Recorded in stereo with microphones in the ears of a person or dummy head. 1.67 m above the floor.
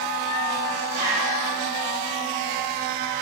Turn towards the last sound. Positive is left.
turn(degrees=-50)  # may be behind; listen again after turning